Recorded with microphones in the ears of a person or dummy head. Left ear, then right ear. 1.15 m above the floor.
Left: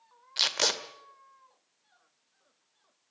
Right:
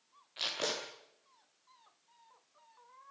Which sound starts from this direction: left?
Tape being pulled, at 0.4 s.